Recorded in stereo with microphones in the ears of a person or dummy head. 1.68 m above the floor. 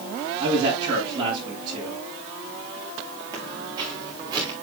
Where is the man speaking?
25° right (ahead or behind), 7.5 m.